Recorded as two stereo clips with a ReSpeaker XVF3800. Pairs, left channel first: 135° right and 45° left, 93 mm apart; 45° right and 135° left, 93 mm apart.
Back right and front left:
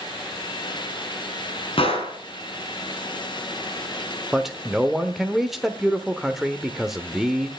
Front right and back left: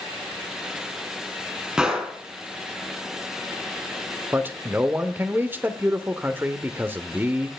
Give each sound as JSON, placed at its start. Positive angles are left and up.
{"t": 1.8, "sound": "a gunshot", "azimuth_deg": -145, "distance_m": 3.5}
{"t": 4.3, "sound": "a man speaking", "azimuth_deg": 130, "distance_m": 0.9}